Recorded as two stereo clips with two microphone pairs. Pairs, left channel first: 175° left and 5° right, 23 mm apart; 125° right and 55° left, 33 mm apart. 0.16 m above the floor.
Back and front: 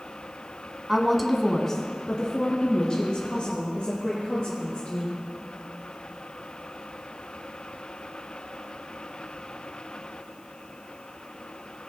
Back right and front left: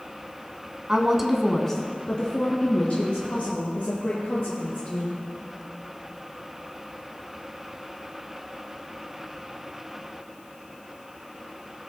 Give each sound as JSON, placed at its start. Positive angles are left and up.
{"t": 0.9, "sound": "a woman speaking", "azimuth_deg": 60, "distance_m": 1.1}